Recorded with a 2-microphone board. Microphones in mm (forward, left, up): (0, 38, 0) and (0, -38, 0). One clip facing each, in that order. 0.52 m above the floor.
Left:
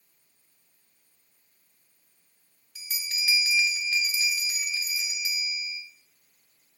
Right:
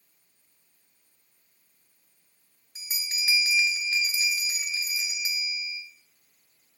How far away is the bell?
About 0.8 m.